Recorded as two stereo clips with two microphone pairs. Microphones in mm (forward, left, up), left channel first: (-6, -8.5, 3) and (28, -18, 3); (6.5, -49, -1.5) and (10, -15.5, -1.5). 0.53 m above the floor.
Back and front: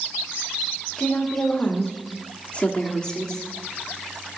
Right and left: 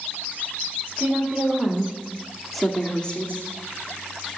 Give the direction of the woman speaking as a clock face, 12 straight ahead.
8 o'clock.